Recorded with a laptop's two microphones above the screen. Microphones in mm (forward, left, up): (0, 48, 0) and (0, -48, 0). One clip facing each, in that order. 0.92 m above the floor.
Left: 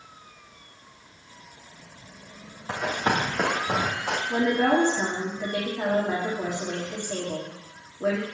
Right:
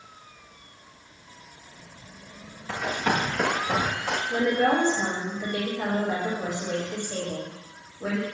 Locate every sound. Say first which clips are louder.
2.7 s running footsteps: left 1 dB; 35° left (ahead or behind), 2.5 m; by 4.2 s 15° left (ahead or behind), 3 m
4.3 s a woman speaking: left 1 dB; 60° left (ahead or behind), 2.5 m